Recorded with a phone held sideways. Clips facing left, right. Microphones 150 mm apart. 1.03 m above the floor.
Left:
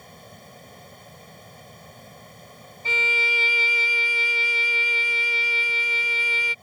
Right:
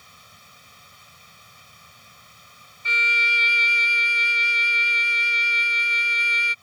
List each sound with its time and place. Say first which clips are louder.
0.0 s a fan: left 9 dB; 50° left (ahead or behind)
2.9 s a violin: left 2 dB; 40° left (ahead or behind)